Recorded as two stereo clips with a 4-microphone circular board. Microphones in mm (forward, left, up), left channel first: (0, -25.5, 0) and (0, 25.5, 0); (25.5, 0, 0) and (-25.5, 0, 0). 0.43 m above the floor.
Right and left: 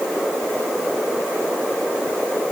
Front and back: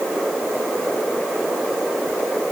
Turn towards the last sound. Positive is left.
No sound to turn to.